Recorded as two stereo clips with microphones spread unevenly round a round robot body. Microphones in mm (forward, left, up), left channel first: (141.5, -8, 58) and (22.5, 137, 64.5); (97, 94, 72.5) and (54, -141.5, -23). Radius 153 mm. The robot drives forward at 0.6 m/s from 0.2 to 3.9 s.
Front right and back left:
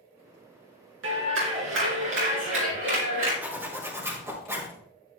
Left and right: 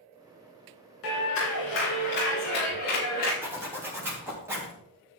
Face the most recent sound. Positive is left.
turn(degrees=-155)